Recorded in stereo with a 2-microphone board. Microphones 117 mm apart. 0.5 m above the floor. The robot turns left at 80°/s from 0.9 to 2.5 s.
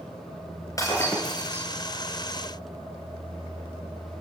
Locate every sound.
0.8 s breaking glass: 30° left, 5.5 m; by 1.7 s 30° right, 5.5 m